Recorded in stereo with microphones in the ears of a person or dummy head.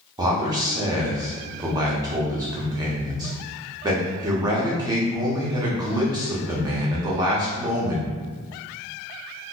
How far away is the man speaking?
About 0.7 m.